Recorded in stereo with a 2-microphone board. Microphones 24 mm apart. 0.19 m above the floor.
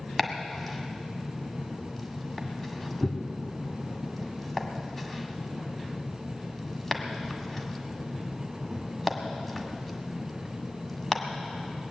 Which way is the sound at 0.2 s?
10° left (ahead or behind).